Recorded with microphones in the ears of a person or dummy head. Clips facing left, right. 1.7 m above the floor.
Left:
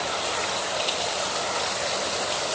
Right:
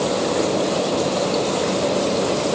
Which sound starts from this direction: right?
A fan, at 0.0 s.